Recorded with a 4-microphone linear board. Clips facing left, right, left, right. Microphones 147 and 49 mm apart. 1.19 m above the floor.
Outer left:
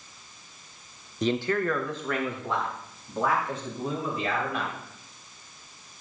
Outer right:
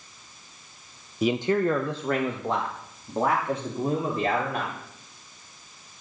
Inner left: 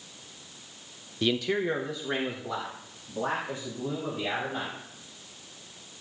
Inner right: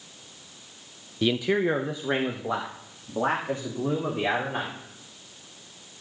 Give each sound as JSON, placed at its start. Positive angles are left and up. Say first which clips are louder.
{"t": 1.2, "sound": "a man speaking", "louder": "outer right 3 dB, inner right 3 dB", "side_deg": -5, "distance_m": 0.6}